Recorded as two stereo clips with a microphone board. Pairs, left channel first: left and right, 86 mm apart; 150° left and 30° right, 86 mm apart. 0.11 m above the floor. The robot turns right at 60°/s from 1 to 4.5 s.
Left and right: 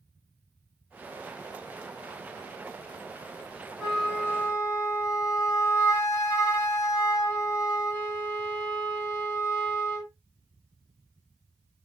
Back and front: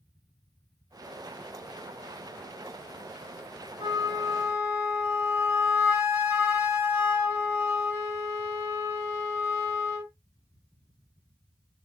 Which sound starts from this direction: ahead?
A flute, at 3.8 s.